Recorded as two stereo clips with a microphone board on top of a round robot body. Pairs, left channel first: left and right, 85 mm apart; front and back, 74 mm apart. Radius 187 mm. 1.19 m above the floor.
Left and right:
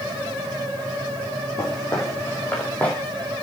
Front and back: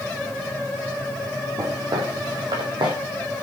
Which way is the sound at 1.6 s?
140° left.